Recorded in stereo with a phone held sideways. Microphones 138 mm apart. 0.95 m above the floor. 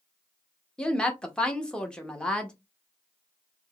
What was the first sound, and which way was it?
A woman speaking, 5° left (ahead or behind).